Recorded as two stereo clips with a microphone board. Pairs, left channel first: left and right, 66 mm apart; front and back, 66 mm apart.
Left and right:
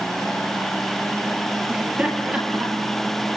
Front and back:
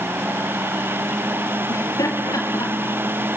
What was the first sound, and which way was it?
Laughter, 20° right.